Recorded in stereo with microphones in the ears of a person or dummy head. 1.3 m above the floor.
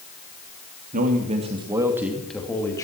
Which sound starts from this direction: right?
A man speaking, at 0.9 s.